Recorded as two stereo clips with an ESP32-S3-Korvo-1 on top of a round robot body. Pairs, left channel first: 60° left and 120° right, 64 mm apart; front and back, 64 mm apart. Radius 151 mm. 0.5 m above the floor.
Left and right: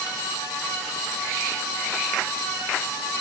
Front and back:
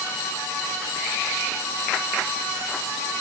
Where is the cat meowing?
I don't hear a cat meowing.